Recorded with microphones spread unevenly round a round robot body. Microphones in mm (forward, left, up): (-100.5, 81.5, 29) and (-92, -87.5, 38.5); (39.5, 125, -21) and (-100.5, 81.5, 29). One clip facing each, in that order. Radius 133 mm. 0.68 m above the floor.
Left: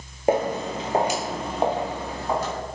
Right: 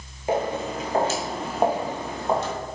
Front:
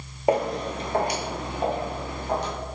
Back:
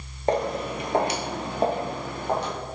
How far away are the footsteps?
About 0.9 m.